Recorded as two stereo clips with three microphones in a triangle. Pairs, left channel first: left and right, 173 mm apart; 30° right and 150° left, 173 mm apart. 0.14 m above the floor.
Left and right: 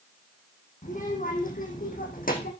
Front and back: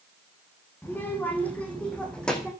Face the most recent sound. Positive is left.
turn(degrees=55)